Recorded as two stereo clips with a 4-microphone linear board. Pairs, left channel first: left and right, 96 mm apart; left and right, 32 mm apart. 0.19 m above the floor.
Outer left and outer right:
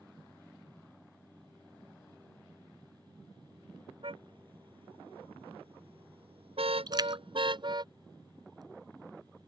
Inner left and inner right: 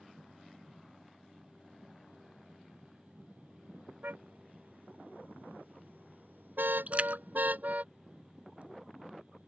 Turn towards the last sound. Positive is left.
turn(degrees=-45)  # may be behind; listen again after turning